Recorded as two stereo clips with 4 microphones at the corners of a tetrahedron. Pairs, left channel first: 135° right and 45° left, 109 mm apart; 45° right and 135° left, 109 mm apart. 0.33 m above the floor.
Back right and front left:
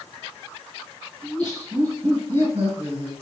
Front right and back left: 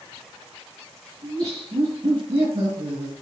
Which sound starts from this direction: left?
Laughter, at 1.2 s.